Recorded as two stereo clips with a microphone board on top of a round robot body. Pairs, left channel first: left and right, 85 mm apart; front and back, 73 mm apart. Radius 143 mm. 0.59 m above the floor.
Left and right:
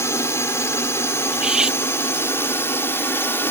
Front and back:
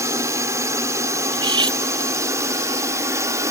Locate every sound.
0.0 s a drone: 140° left; by 3.5 s 145° left
1.3 s cutlery clinking: 170° right